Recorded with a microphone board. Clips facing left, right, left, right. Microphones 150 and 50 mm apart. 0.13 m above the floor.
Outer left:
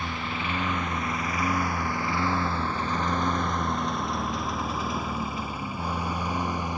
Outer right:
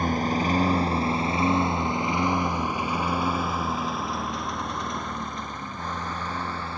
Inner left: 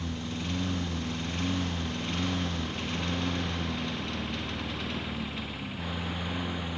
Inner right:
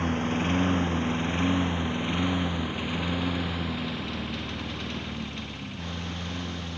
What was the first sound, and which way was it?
A lawn mower, 45° right (ahead or behind).